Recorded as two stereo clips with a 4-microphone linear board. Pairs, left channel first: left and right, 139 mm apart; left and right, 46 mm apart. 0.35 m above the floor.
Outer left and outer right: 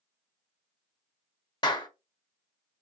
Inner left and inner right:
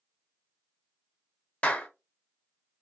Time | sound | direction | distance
1.6 | a clap | 30° left (ahead or behind) | 0.8 m